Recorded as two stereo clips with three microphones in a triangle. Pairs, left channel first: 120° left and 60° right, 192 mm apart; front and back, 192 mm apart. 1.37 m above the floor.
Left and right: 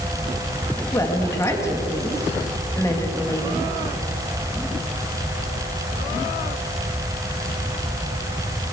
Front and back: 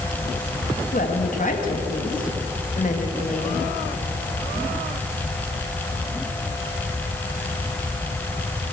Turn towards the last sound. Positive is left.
turn(degrees=45)